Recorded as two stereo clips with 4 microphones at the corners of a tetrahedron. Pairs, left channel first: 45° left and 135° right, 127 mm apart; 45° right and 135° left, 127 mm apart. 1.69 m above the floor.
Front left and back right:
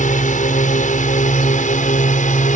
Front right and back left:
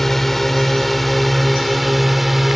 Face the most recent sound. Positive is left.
turn(degrees=45)